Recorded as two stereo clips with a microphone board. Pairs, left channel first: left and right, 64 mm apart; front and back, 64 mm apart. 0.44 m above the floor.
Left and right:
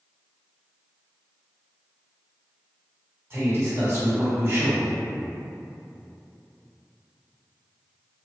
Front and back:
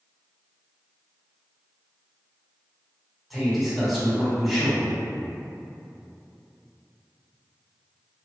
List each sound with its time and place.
3.3 s a man speaking: 90° right, 1.4 m